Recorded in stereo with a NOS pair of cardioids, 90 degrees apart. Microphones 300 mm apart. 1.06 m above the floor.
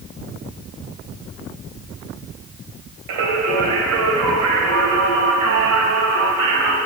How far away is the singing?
About 2.5 m.